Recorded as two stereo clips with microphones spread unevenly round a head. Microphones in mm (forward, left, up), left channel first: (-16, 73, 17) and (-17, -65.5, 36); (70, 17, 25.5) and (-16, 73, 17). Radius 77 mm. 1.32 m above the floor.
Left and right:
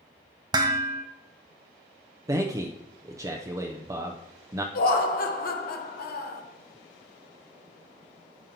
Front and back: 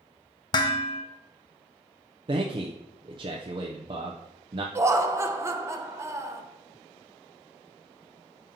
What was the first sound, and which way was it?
Dishes clattering, 50° right.